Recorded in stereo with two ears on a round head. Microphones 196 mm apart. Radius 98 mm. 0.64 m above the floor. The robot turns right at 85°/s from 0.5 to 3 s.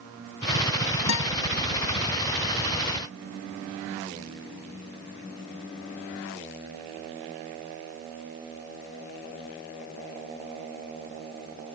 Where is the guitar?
80° left; by 1.3 s 75° left (ahead or behind).